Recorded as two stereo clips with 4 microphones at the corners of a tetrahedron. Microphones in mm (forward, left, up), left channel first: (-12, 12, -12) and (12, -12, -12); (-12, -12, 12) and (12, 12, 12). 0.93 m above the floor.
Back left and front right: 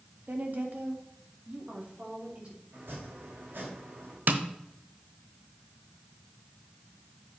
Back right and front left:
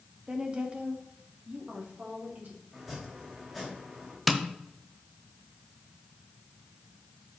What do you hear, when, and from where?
0.3 s a woman speaking: 15° right, 1.7 m; by 2.6 s 5° left, 3.5 m
2.7 s chopping: 40° right, 3 m
4.3 s tapping: 40° right, 1.0 m